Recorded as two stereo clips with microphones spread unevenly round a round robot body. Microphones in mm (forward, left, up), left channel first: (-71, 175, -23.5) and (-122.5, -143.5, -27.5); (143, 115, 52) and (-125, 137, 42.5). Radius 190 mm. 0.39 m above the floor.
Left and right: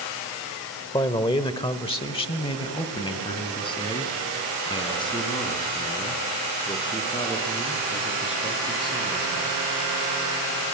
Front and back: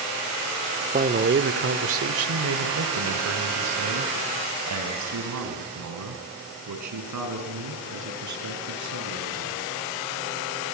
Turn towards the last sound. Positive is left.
turn(degrees=160)